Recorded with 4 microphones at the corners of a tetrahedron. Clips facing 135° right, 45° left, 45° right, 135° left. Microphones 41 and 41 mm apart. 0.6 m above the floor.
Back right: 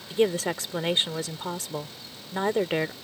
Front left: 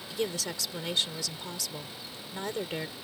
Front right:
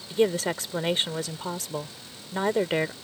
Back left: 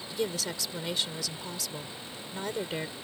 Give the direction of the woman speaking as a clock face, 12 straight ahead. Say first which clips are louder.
Back right 9 dB, front right 9 dB; 3 o'clock.